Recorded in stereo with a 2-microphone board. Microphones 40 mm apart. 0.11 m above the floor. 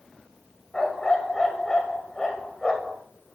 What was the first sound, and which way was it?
A dog barking, 10° left (ahead or behind).